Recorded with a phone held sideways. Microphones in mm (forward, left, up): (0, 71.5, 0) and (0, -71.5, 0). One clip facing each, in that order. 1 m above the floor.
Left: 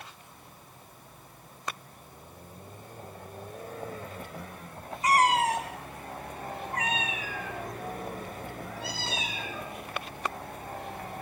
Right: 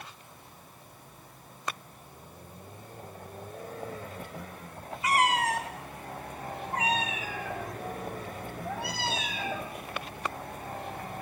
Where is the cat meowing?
40° left (ahead or behind), 0.8 m; by 9.7 s 70° right (ahead or behind), 1.9 m.